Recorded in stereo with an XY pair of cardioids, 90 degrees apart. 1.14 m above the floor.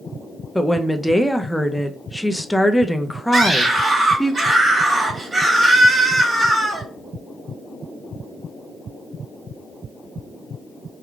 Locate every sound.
0.6 s a woman speaking: 5° left, 0.6 m
3.3 s a scream: 30° right, 2 m